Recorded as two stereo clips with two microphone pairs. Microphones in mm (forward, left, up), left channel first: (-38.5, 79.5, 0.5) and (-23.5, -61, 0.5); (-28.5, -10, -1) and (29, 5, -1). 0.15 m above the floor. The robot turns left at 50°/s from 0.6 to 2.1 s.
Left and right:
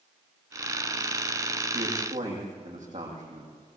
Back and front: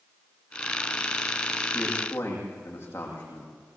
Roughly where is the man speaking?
Right.